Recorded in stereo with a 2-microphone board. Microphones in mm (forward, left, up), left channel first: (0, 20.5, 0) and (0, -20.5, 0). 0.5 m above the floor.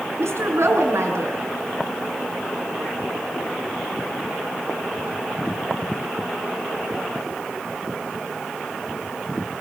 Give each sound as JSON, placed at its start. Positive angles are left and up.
{"t": 0.2, "sound": "a woman speaking", "side_deg": -80, "distance_m": 6.0}